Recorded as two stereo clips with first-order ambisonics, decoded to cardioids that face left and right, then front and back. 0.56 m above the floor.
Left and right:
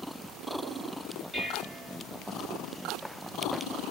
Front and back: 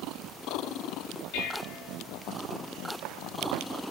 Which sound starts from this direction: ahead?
Dishes clattering, at 1.3 s.